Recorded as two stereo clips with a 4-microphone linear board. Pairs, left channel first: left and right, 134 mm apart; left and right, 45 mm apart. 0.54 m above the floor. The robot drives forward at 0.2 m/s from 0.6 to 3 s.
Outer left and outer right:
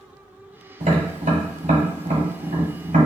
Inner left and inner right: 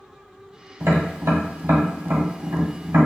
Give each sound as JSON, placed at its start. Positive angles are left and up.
{"t": 0.8, "sound": "tapping", "side_deg": -75, "distance_m": 1.0}